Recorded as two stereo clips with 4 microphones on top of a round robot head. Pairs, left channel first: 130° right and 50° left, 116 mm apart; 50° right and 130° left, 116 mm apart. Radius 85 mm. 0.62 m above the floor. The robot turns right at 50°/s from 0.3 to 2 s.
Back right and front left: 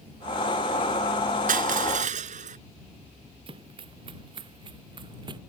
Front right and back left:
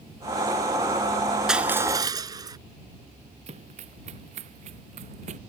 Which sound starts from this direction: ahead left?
Crushing, at 1.5 s.